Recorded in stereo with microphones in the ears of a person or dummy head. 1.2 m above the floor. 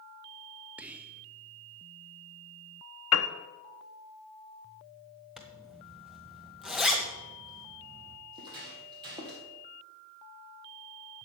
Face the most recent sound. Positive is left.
turn(degrees=-20)  # may be behind; listen again after turning